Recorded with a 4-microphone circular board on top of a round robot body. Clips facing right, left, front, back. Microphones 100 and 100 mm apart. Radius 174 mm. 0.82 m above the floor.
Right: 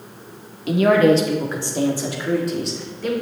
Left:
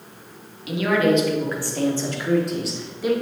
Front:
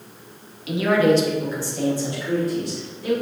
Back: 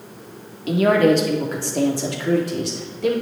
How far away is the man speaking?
About 2.5 m.